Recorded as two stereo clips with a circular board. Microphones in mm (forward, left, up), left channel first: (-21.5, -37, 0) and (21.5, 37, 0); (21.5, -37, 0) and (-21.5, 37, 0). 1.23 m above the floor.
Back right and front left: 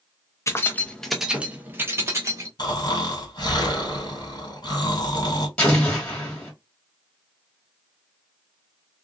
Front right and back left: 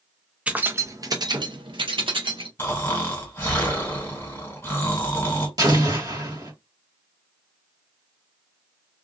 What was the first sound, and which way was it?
Keys jangling, 165° right.